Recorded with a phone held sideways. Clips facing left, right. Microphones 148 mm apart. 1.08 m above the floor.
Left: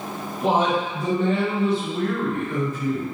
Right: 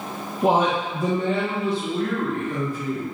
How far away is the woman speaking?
About 0.7 m.